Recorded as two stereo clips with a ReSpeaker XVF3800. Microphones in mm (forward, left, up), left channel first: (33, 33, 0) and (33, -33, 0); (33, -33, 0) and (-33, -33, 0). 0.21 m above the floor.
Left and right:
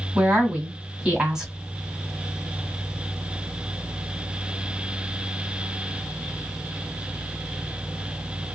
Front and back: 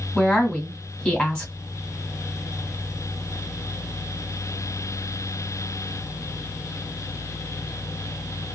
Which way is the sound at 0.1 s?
35° right.